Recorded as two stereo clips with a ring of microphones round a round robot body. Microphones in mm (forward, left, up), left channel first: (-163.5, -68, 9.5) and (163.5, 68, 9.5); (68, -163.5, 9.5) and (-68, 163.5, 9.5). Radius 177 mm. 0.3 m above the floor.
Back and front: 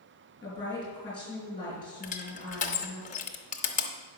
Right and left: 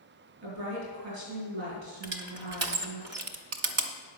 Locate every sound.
0.4 s a woman speaking: 125° left, 5 m
2.0 s crushing: 140° left, 0.9 m